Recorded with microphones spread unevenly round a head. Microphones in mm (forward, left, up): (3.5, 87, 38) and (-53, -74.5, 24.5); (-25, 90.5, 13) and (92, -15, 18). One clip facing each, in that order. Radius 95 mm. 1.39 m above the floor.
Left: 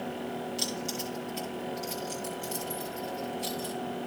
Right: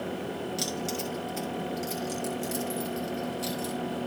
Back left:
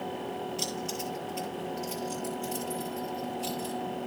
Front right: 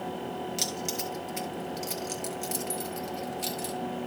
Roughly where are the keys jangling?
Ahead right.